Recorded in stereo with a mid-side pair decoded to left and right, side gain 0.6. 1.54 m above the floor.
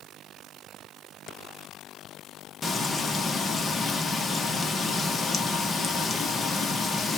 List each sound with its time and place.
2.6 s frying: 25° left, 1.0 m